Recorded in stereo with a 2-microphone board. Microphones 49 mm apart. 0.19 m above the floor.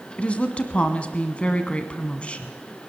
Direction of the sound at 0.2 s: 25° left (ahead or behind).